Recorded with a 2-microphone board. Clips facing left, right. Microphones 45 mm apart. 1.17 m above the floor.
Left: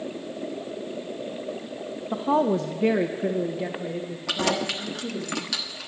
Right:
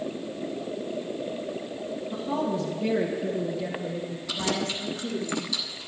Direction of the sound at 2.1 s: 55° left (ahead or behind).